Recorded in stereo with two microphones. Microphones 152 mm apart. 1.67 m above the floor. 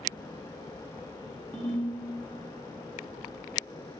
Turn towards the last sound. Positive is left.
turn(degrees=10)  # may be behind; listen again after turning